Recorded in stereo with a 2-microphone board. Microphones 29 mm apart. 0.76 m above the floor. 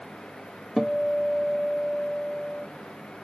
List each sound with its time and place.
0.8 s a guitar: 10° left (ahead or behind), 0.6 m